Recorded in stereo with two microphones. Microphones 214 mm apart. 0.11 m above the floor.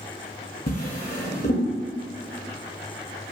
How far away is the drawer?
About 0.7 m.